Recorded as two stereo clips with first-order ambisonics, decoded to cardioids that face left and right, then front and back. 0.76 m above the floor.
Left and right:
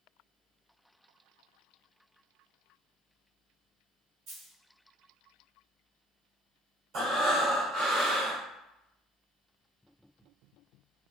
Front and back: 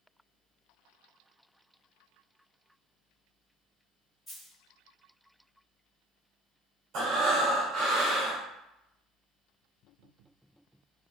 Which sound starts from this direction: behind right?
Breathing, at 6.9 s.